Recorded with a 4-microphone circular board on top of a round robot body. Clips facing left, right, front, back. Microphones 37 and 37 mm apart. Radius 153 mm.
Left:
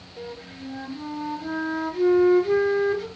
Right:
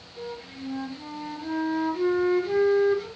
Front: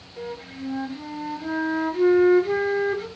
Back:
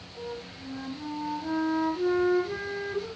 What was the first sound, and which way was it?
A flute, straight ahead.